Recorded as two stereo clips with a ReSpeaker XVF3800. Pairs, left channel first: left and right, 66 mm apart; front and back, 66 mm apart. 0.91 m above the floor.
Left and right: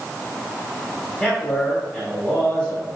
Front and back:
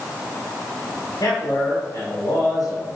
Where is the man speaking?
20° left, 2.5 m.